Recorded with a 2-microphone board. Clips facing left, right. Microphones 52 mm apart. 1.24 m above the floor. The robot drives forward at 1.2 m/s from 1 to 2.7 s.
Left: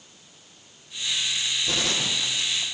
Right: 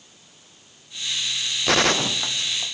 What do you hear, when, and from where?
1.7 s a gunshot: 70° right (ahead or behind), 0.8 m; by 2.8 s 30° right (ahead or behind), 1.7 m